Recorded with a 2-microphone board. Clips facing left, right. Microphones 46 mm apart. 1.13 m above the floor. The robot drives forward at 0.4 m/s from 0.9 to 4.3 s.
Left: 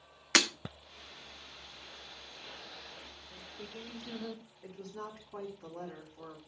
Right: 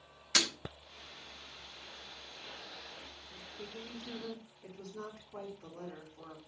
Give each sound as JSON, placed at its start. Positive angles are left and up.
{"t": 0.3, "sound": "breaking glass", "side_deg": 60, "distance_m": 0.9}
{"t": 3.3, "sound": "singing", "side_deg": 30, "distance_m": 0.7}
{"t": 4.6, "sound": "a woman speaking", "side_deg": 75, "distance_m": 3.0}